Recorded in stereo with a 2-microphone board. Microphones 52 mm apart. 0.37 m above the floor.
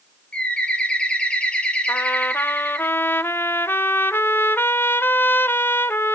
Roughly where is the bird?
Left.